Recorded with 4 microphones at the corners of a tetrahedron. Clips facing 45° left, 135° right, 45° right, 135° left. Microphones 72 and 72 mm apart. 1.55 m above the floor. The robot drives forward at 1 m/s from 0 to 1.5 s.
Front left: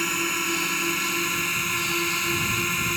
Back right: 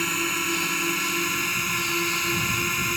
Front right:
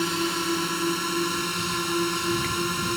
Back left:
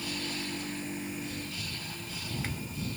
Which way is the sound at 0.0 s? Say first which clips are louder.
Even, front right 11 dB; 45° right.